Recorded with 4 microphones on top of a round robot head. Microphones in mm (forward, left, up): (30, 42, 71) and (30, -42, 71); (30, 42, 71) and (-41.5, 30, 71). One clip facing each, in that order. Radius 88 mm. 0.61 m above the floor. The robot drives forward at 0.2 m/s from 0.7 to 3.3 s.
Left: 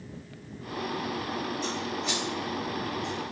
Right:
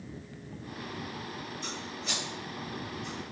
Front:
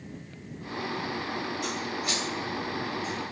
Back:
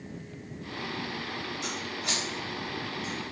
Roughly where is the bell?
No bell in this recording.